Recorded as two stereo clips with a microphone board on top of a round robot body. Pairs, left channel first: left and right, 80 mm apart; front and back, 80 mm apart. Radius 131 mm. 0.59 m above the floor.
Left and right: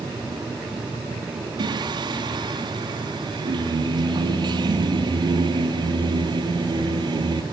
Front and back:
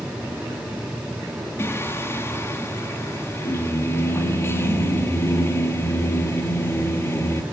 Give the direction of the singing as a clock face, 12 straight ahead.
2 o'clock.